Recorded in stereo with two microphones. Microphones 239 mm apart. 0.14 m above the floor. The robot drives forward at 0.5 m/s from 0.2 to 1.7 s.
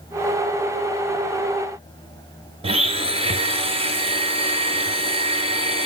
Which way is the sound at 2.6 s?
25° right (ahead or behind).